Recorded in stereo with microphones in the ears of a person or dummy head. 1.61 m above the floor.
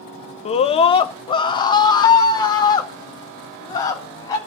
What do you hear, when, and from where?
0.5 s a scream: 30° left (ahead or behind), 0.8 m; by 4.4 s 15° left (ahead or behind), 3.5 m